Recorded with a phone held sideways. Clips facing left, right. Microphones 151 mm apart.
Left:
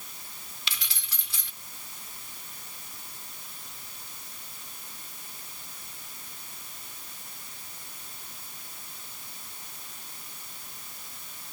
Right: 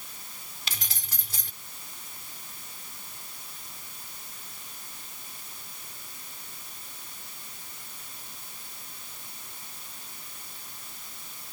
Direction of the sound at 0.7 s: 45° right (ahead or behind).